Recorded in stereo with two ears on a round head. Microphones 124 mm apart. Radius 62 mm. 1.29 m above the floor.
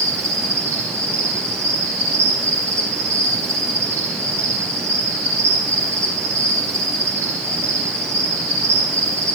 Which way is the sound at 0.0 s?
20° right (ahead or behind).